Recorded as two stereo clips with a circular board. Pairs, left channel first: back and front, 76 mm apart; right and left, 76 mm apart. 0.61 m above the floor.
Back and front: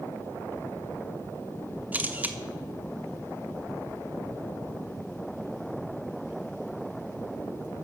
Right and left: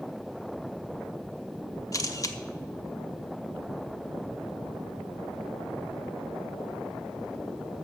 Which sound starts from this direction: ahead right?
A camera shutter, at 1.9 s.